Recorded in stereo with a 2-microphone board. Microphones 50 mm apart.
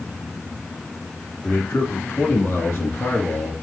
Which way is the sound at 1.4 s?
50° left (ahead or behind).